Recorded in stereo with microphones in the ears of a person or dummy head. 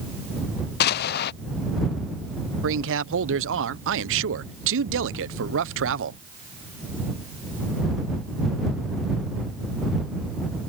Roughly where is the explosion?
Left.